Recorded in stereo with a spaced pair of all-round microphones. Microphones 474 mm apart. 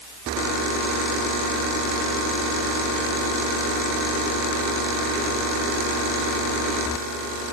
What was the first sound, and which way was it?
Only background noise.